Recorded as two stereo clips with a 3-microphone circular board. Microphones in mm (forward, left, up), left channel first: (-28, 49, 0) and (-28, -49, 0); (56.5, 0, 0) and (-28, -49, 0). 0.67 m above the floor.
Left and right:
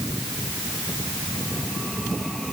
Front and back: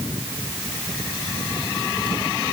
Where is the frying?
I don't hear frying.